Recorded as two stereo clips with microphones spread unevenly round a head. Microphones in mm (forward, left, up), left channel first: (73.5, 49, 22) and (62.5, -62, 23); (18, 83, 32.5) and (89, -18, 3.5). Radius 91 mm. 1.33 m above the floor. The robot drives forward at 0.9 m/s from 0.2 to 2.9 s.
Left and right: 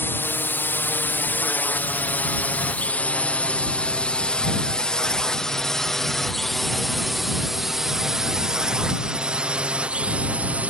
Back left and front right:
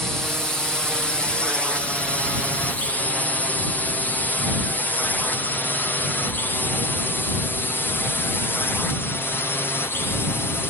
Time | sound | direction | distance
0.0 | a drone | 25° left | ?